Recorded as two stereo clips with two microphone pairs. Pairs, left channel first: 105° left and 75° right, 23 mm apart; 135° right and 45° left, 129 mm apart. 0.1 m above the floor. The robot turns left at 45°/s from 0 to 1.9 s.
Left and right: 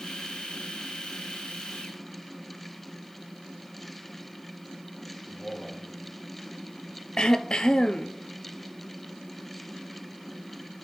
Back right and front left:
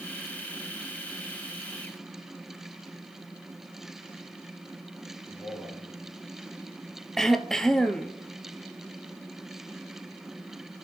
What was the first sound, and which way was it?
A man speaking, 135° left.